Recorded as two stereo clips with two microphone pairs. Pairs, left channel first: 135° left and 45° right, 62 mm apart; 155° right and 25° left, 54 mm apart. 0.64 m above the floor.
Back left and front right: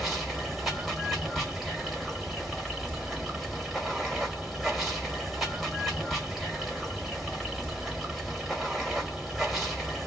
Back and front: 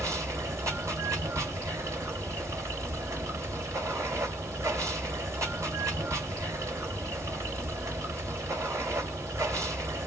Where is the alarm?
I don't hear an alarm.